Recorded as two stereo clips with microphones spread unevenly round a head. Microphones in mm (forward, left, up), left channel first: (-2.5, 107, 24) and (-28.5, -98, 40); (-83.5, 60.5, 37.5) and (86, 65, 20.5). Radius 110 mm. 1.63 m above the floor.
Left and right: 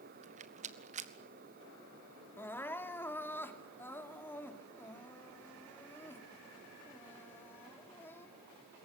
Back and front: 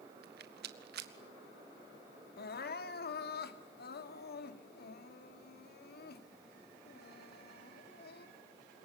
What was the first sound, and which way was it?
A rattle, 40° right.